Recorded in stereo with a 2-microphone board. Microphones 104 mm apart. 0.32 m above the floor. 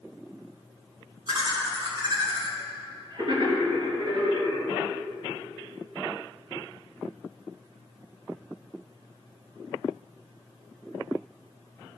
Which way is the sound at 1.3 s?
45° right (ahead or behind).